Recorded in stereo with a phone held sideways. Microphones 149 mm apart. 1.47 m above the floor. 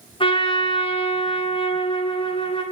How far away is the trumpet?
About 0.8 m.